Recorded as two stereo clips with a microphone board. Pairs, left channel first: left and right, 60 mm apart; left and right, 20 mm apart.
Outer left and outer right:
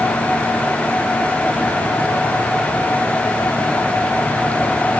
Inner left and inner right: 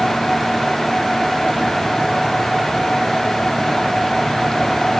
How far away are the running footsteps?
No running footsteps in this recording.